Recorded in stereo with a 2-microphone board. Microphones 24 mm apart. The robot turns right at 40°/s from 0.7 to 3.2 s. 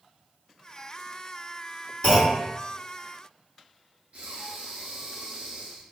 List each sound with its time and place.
2.0 s a clunk: 35° left (ahead or behind), 1.8 m; by 2.4 s 25° left (ahead or behind), 1.8 m
4.1 s breathing: 50° right (ahead or behind), 0.6 m